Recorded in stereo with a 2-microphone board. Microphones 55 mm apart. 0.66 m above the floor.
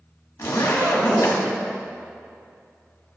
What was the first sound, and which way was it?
A zipper, 85° left.